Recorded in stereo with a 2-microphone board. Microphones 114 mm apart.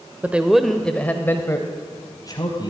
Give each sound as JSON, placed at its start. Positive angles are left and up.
{"t": 0.2, "sound": "a man speaking", "side_deg": -15, "distance_m": 1.0}